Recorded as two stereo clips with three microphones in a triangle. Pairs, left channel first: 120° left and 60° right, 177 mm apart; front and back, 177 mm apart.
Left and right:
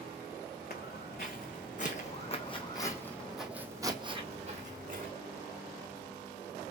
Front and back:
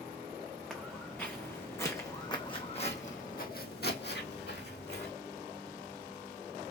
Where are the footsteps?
90° left, 1.6 m; by 5.1 s 25° right, 1.2 m.